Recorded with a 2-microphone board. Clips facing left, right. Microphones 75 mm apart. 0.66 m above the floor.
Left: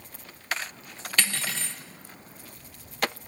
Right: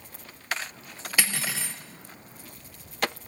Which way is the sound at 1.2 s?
10° right (ahead or behind).